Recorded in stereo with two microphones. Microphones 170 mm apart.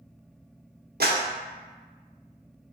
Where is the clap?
75° right (ahead or behind), 0.7 m.